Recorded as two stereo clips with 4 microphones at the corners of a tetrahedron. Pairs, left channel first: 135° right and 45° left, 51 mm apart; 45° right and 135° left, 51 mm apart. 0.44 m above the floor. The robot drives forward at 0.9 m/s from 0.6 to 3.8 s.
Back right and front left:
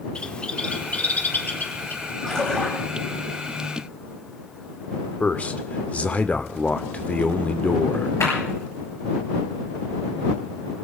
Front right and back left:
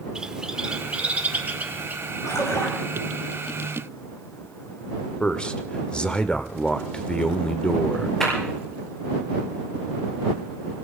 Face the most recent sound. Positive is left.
turn(degrees=-125)